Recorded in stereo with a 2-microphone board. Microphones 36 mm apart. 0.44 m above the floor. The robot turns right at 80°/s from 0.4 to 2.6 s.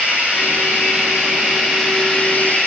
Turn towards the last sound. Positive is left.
turn(degrees=55)